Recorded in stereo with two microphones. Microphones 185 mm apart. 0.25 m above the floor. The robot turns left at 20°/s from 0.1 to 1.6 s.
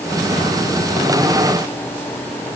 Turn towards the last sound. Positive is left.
No sound to turn to.